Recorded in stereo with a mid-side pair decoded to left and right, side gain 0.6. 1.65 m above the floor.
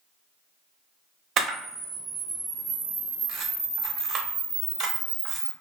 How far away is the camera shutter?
About 0.8 m.